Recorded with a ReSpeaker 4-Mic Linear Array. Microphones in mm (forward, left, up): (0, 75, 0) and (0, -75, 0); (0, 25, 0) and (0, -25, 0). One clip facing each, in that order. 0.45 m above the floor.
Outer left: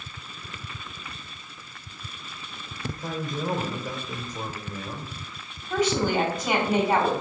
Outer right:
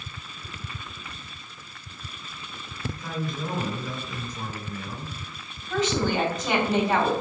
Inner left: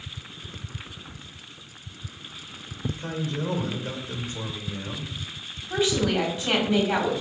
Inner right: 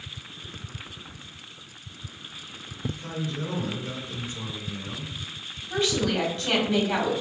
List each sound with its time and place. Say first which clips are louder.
2.9 s a man speaking: outer left 1 dB, inner left 2 dB; 45° left (ahead or behind), 2.0 m
5.7 s a woman speaking: outer left 1 dB, inner left 2 dB; 10° left (ahead or behind), 3 m